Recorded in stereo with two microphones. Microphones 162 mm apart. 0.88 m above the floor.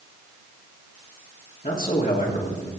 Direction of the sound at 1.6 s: 55° left (ahead or behind).